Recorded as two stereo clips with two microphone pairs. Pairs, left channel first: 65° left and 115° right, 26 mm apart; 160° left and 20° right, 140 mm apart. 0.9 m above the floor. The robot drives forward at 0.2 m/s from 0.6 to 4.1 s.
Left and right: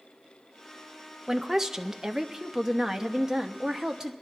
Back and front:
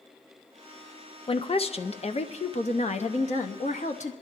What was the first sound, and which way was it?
A woman speaking, straight behind.